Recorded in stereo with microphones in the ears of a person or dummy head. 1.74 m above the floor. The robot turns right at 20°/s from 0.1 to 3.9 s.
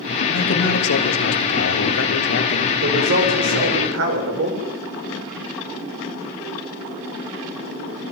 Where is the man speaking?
75° left, 3.5 m; by 2.7 s 125° left, 3.5 m.